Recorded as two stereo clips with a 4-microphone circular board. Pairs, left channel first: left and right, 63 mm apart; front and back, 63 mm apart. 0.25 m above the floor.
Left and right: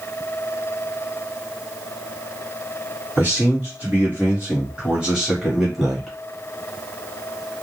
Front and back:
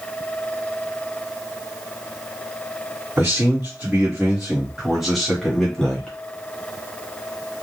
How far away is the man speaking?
About 1.7 m.